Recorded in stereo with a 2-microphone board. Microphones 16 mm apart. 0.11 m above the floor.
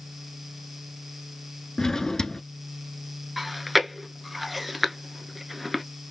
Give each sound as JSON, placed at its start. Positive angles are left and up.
{"t": 1.8, "sound": "a drawer", "side_deg": 35, "distance_m": 0.7}
{"t": 3.4, "sound": "chewing", "side_deg": 0, "distance_m": 0.8}